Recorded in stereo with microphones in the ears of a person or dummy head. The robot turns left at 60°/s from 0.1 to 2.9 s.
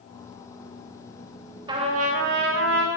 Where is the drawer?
I don't hear a drawer.